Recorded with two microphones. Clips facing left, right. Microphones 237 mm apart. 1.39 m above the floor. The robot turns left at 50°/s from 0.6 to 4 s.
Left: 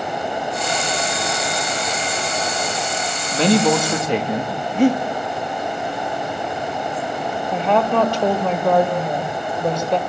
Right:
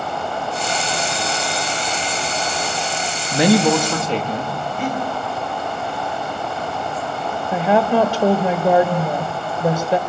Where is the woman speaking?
15° right (ahead or behind), 1.5 m.